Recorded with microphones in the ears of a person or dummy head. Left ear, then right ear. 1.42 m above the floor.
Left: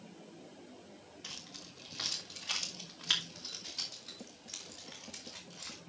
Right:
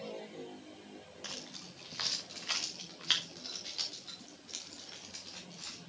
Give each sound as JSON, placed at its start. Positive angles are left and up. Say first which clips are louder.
{"t": 1.2, "sound": "keys jangling", "louder": "right 2 dB", "side_deg": -40, "distance_m": 1.6}